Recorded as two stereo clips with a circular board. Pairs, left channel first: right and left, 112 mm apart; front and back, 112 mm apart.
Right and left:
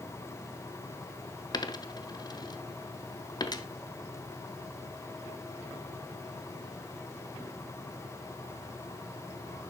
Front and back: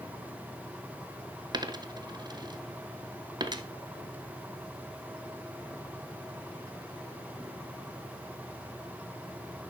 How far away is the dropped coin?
About 0.8 m.